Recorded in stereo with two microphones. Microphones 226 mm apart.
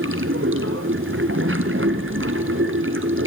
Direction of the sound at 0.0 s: 65° right (ahead or behind).